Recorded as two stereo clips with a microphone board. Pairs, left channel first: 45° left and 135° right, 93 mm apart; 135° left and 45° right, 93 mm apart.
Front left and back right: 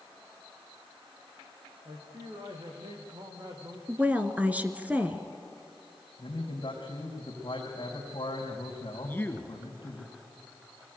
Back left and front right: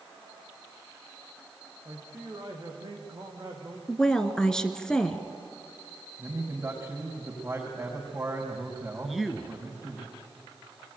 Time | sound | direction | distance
1.9 | a man speaking | 95° right | 5 m
3.9 | a woman speaking | 160° right | 1.3 m
6.2 | a man speaking | 20° left | 5 m
9.0 | a man speaking | 40° left | 1.6 m